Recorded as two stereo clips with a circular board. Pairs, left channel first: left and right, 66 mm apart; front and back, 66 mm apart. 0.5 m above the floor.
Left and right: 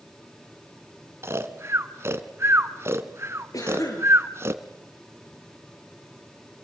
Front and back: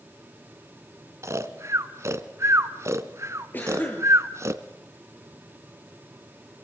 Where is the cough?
60° left, 8.5 m.